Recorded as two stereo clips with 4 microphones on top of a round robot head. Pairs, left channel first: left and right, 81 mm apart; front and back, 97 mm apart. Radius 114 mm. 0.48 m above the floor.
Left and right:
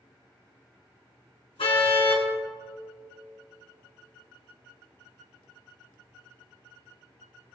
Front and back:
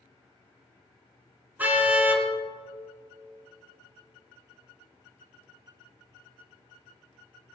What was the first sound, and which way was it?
A car horn, 110° left.